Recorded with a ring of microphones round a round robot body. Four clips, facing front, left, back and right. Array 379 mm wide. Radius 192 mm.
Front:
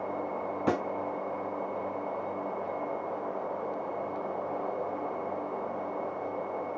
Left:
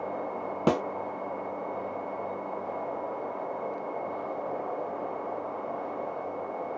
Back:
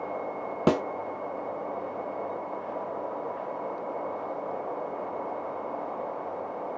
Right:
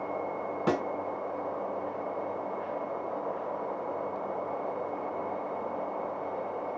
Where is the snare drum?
150° left, 0.8 m.